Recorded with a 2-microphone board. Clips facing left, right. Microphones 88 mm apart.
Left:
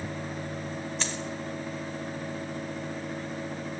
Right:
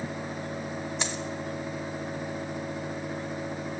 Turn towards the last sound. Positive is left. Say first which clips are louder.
# right 1 dB
turn(degrees=-15)  # may be behind; listen again after turning